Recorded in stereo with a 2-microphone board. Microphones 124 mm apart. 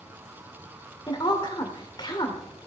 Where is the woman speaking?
35° left (ahead or behind), 1.9 m.